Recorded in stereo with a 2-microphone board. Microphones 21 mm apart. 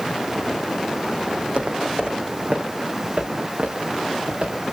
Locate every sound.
1.4 s footsteps: 55° right (ahead or behind), 3 m; by 4.6 s 70° right (ahead or behind), 6 m